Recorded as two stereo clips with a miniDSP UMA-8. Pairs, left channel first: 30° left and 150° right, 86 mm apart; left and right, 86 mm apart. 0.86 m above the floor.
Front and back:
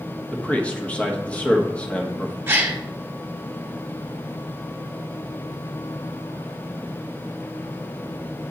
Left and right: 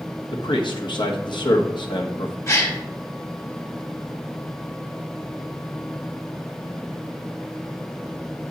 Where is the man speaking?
105° left, 1.2 m.